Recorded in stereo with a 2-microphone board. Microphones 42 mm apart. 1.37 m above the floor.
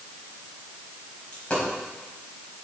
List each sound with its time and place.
1.3 s a dropped coin: 25° left (ahead or behind), 4 m